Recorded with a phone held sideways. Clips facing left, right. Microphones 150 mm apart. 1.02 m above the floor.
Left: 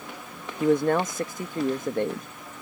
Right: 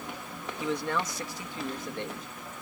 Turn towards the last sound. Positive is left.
turn(degrees=50)  # may be behind; listen again after turning